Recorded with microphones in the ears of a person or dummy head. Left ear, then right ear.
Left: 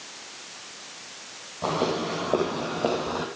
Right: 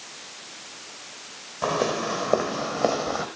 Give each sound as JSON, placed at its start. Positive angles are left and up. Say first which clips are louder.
{"t": 1.6, "sound": "footsteps", "louder": "right 2 dB", "side_deg": -60, "distance_m": 4.5}